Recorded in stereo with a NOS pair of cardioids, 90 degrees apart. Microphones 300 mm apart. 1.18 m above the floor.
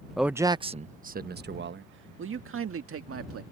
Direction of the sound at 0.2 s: Straight ahead.